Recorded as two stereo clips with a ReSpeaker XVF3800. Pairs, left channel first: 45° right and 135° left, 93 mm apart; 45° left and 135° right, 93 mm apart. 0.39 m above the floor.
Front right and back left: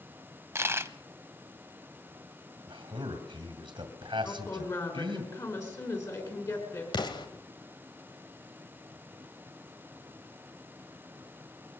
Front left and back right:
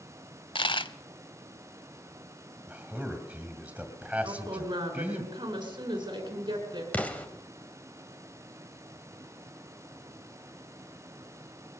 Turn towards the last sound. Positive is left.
turn(degrees=-25)